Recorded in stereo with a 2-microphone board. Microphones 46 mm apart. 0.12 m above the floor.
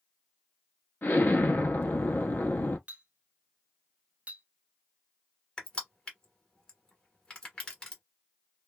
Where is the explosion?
45° left (ahead or behind), 0.7 m.